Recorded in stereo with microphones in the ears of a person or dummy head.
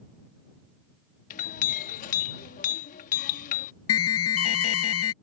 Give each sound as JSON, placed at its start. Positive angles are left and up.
{"t": 1.3, "sound": "a clink", "side_deg": 45}
{"t": 3.9, "sound": "an alarm", "side_deg": 70}